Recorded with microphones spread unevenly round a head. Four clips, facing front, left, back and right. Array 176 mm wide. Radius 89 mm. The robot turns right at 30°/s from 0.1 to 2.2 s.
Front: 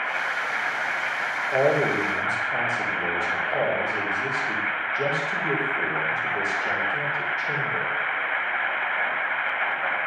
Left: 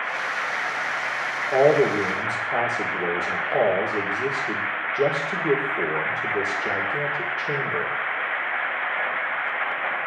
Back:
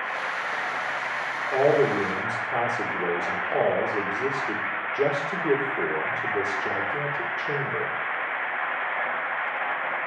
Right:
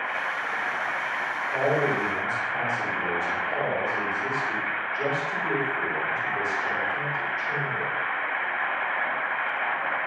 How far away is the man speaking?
About 2.5 m.